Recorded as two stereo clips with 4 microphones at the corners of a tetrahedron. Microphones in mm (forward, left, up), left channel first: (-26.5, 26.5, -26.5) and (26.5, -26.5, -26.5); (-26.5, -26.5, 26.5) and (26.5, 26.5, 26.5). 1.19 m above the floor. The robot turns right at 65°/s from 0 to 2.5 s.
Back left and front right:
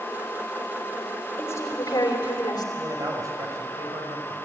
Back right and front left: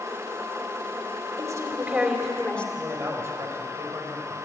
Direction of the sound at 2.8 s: 5° right.